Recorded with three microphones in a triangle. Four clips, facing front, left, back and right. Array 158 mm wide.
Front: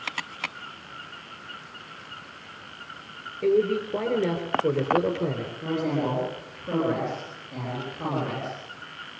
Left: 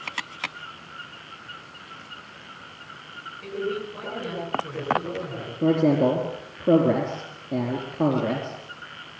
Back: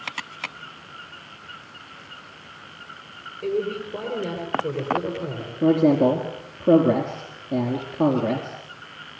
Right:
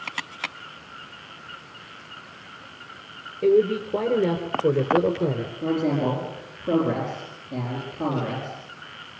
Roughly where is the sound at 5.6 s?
Behind left.